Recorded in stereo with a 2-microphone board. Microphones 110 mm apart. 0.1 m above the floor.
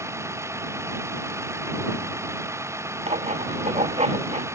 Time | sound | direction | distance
0.0 | a vehicle | 25° right (ahead or behind) | ?
3.1 | writing | 80° right | ?